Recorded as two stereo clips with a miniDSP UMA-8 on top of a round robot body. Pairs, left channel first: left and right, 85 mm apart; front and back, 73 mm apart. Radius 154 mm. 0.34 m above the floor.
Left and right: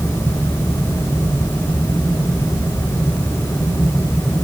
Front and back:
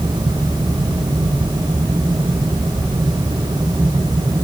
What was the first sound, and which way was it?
Only background noise.